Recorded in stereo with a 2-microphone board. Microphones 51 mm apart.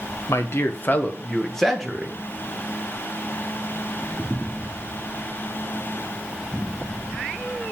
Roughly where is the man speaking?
Left.